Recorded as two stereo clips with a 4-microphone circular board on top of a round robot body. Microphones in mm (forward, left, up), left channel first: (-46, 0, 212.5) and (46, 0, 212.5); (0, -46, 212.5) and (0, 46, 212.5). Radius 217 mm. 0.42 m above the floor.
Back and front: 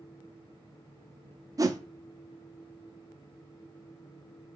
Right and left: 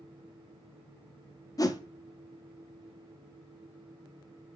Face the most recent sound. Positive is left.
turn(degrees=-45)